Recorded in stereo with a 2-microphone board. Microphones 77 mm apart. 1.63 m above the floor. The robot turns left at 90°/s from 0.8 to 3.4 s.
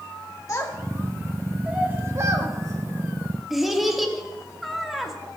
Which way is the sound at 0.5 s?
35° left (ahead or behind).